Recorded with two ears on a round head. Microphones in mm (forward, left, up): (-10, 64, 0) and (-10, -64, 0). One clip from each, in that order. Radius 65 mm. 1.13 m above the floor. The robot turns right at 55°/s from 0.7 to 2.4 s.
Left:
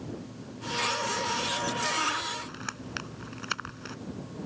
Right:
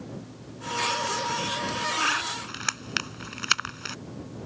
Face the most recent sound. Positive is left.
turn(degrees=-70)  # may be behind; listen again after turning